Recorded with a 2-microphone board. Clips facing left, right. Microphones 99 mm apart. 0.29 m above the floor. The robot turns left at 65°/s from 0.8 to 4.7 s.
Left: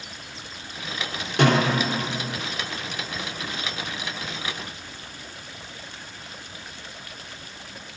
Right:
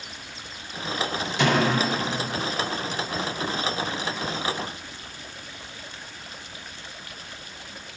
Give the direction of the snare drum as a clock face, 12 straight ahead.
9 o'clock.